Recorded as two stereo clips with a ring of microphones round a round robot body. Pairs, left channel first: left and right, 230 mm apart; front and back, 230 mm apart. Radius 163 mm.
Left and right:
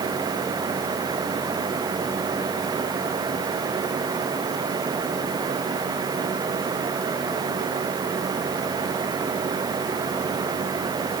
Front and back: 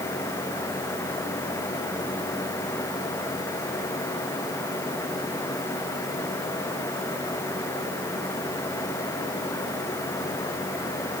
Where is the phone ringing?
No phone ringing in this recording.